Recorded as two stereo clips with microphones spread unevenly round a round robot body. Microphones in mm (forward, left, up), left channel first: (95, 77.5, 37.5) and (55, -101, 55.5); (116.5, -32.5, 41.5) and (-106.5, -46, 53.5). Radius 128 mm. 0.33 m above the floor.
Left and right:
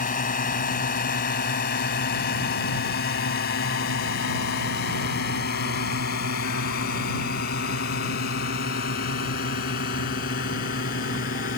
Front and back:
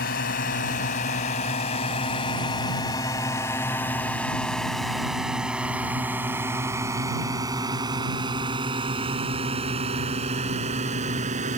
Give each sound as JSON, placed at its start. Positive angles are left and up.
{"t": 0.0, "sound": "a drone", "azimuth_deg": 45}